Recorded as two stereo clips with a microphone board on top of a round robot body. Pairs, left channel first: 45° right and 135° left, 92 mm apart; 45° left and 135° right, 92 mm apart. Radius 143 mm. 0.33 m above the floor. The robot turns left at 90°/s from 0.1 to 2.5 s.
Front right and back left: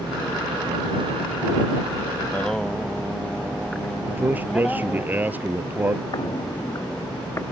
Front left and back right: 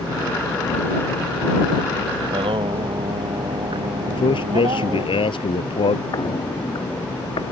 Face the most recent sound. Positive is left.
turn(degrees=15)